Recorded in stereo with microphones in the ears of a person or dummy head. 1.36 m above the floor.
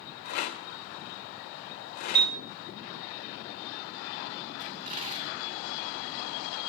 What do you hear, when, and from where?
0.2 s a rattle: 60° left (ahead or behind), 2.0 m
2.1 s a piano: 30° right (ahead or behind), 1.2 m
4.6 s a dropped coin: 35° right (ahead or behind), 2 m